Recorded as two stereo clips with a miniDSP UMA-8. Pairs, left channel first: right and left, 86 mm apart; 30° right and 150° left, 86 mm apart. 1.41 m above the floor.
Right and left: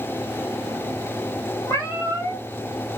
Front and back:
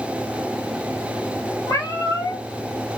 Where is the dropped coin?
No dropped coin in this recording.